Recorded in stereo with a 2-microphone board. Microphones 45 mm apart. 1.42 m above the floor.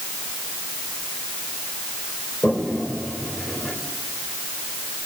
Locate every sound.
2.4 s a toilet flushing: 20° left (ahead or behind), 3.5 m